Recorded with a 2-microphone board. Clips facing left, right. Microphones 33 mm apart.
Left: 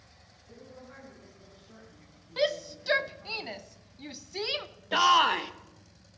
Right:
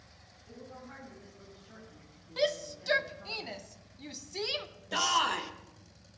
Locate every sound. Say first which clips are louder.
0.5 s a woman speaking: right 1 dB; 45° right (ahead or behind), 8 m; by 3.4 s 35° right (ahead or behind), 4.5 m
2.4 s a shout: left 2 dB; 15° left (ahead or behind), 0.5 m
4.9 s a shout: left 7 dB; 25° left (ahead or behind), 0.7 m